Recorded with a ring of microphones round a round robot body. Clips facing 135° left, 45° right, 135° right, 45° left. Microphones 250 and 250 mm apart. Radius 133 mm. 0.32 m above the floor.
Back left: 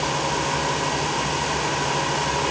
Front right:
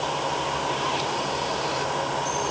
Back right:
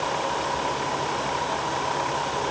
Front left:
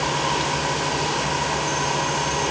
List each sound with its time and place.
Only background noise.